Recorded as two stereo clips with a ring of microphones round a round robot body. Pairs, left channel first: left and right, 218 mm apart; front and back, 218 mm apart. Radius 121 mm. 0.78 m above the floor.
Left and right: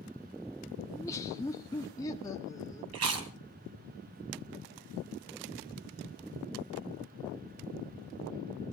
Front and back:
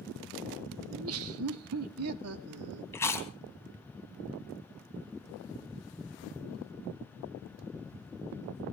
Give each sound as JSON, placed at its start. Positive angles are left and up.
{"t": 0.9, "sound": "laughter", "azimuth_deg": 165, "distance_m": 1.0}
{"t": 2.9, "sound": "chewing", "azimuth_deg": -80, "distance_m": 3.5}